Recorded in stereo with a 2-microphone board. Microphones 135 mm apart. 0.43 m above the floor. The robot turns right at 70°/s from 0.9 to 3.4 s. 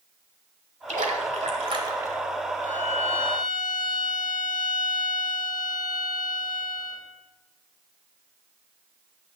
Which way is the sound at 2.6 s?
90° left.